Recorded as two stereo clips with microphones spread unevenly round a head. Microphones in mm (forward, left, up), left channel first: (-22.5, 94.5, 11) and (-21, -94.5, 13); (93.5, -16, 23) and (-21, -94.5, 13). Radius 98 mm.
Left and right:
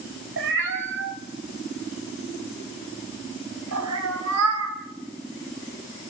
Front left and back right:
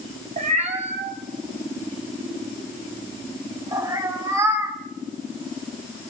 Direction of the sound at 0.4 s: 110° right.